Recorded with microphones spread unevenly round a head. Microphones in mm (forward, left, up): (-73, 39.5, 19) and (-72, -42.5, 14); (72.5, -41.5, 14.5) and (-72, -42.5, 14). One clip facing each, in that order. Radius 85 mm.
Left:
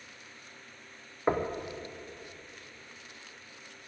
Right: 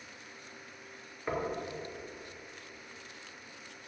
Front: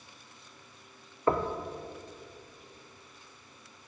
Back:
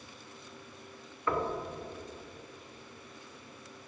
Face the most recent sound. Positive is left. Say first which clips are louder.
# left 5 dB, front 4 dB
turn(degrees=45)